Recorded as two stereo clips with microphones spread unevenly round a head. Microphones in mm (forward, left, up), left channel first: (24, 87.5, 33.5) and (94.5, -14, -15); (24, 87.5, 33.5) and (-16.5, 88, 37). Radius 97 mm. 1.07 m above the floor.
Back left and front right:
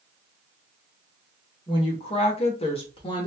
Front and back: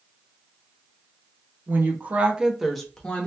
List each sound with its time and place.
1.7 s a woman speaking: 165° right, 0.8 m; by 3.3 s 55° left, 0.8 m